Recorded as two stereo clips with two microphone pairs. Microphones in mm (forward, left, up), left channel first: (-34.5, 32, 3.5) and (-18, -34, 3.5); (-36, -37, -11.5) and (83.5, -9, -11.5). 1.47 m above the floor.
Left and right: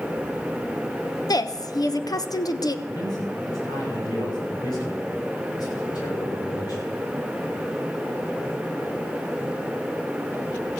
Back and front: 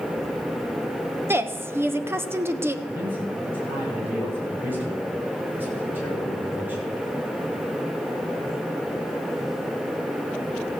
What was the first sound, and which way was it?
A woman speaking, 80° left.